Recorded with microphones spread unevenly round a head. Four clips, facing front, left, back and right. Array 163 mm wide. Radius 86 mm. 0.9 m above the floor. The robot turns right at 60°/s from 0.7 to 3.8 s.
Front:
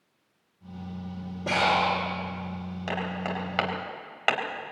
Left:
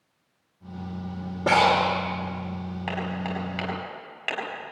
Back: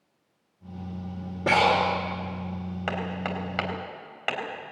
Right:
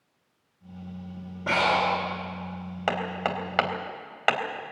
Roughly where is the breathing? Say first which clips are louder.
Left 4 dB, back 3 dB; behind left.